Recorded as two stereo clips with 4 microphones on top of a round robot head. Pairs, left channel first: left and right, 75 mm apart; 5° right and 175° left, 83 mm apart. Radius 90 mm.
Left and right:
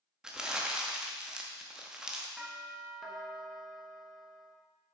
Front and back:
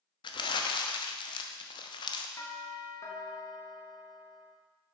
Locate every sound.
0.2 s crumpling: 10° right, 0.8 m
2.4 s a doorbell: 10° right, 1.4 m